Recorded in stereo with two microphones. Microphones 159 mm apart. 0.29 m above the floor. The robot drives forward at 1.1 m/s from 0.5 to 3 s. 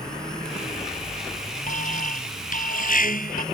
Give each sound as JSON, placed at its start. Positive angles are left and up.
{"t": 1.7, "sound": "an alarm", "side_deg": 55}